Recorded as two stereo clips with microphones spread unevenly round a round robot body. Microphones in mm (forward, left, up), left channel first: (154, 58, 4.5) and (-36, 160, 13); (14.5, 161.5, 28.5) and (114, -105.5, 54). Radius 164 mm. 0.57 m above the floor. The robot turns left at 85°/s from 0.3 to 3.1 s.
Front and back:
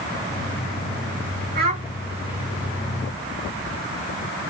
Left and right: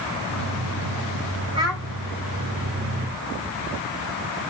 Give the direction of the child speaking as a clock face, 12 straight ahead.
5 o'clock.